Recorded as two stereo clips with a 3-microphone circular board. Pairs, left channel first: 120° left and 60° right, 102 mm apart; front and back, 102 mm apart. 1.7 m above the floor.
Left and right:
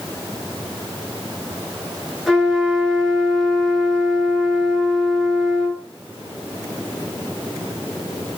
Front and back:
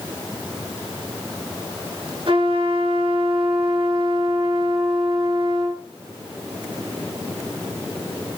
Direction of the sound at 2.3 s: 150° right.